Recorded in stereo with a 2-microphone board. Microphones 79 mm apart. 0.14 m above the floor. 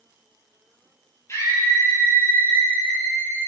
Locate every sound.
1.3 s a scream: 40° left (ahead or behind), 3.5 m; by 3.5 s 20° left (ahead or behind), 3 m